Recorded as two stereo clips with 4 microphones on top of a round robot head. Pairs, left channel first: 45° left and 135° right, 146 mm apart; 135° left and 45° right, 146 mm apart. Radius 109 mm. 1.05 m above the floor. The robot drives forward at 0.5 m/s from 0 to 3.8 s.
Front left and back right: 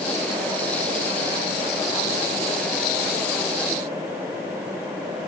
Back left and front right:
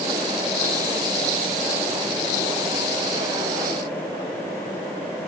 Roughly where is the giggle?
I don't hear a giggle.